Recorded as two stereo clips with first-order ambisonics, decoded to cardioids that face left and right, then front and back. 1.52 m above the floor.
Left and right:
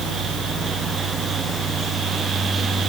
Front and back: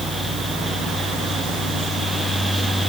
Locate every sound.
Only background noise.